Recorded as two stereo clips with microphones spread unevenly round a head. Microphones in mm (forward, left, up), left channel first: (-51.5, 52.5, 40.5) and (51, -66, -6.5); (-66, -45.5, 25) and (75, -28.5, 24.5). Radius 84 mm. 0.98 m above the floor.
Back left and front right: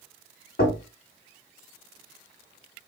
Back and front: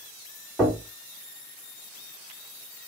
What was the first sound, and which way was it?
Knocking, 95° left.